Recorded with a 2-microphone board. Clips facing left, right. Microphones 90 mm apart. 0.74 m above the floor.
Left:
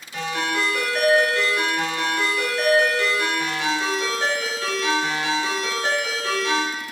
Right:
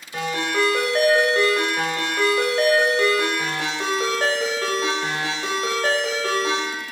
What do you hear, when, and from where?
0.1 s a ringtone: 45° right (ahead or behind), 0.9 m